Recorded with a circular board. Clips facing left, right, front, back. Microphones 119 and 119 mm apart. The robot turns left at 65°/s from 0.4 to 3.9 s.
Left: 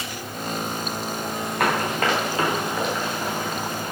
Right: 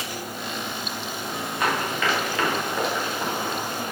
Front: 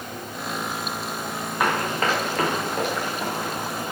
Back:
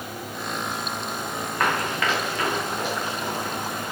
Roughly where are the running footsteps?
Left.